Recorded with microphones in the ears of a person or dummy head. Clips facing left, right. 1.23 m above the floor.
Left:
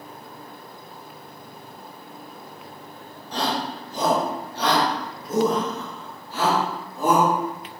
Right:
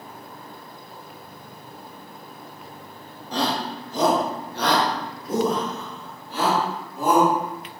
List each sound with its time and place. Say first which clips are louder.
3.3 s a shout: right 1 dB; 60° right (ahead or behind), 1.0 m; by 7.7 s 5° right (ahead or behind), 2 m